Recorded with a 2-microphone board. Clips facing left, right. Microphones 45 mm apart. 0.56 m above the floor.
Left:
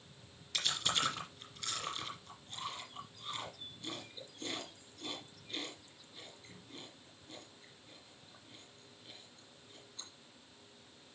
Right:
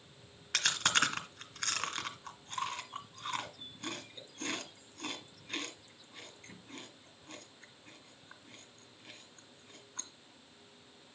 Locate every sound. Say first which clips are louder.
0.5 s chewing: right 5 dB; 70° right (ahead or behind), 2.0 m